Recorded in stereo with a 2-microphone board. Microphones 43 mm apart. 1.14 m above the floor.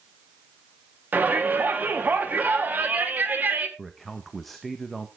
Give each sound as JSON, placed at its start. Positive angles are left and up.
{"t": 1.1, "sound": "a shout", "side_deg": -40, "distance_m": 2.5}
{"t": 3.8, "sound": "a man speaking", "side_deg": 5, "distance_m": 1.2}